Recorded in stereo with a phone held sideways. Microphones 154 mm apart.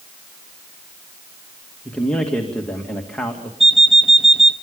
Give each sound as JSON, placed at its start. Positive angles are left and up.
{"t": 1.9, "sound": "a man speaking", "side_deg": 5, "distance_m": 2.5}
{"t": 3.6, "sound": "an alarm clock", "side_deg": 0, "distance_m": 0.7}